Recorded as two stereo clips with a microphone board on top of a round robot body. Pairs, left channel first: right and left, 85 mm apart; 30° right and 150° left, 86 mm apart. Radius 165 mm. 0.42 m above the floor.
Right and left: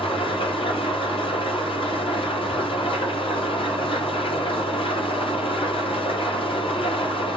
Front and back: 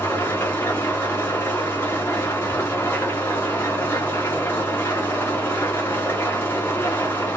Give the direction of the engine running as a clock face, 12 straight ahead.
3 o'clock.